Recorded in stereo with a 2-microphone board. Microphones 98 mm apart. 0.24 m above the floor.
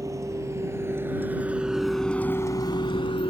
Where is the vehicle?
35° right (ahead or behind); by 3.3 s 70° left (ahead or behind).